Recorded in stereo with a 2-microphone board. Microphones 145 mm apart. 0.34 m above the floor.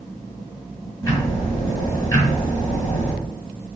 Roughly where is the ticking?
Left.